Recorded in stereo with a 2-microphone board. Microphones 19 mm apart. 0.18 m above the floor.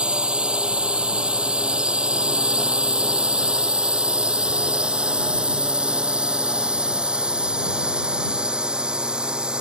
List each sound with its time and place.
0.0 s a drone: 75° right (ahead or behind); by 9.6 s 60° right (ahead or behind)